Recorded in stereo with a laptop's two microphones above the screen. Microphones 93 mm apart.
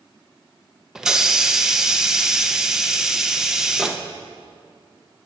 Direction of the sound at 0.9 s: 5° right (ahead or behind).